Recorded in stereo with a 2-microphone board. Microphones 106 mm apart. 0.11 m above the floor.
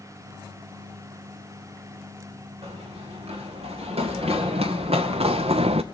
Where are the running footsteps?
75° right (ahead or behind), 3.5 m.